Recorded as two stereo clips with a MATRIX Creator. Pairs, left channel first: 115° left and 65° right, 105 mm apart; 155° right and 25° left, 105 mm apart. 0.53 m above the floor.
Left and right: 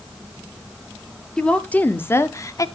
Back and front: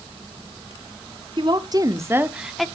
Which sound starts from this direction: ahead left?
A woman speaking, at 1.4 s.